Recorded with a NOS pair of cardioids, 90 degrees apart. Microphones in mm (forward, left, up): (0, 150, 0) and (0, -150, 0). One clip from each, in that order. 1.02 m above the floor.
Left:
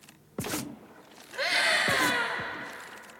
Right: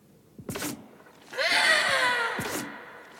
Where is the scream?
45° right, 2.5 m; by 2.4 s 35° right, 3 m.